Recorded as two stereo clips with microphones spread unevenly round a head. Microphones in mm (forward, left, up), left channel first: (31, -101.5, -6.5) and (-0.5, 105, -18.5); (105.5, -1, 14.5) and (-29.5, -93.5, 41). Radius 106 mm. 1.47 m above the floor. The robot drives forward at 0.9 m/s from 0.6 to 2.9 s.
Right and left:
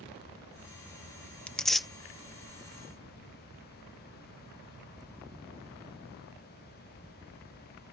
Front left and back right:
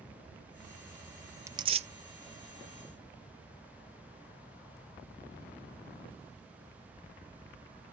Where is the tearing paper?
150° right; by 1.9 s 170° right.